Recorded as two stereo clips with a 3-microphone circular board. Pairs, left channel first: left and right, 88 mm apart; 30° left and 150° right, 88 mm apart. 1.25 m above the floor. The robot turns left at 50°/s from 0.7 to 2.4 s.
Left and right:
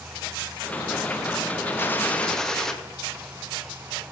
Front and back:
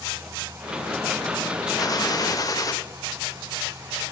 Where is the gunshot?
40° left, 0.6 m; by 2.7 s 10° left, 0.6 m.